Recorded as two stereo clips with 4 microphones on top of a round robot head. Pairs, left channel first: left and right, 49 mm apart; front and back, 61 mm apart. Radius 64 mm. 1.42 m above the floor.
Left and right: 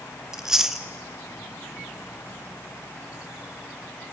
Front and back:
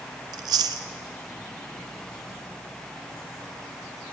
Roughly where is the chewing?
Behind.